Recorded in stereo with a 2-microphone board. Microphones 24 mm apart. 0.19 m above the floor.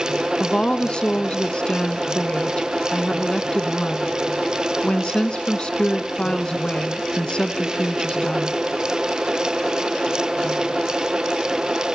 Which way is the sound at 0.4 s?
40° left (ahead or behind).